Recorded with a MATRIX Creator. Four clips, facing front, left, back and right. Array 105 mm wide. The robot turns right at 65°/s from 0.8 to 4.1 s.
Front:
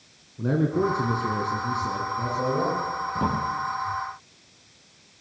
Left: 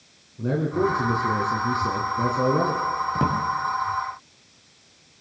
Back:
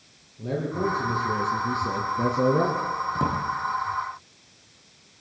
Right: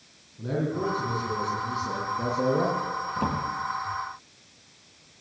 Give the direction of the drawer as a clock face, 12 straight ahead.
9 o'clock.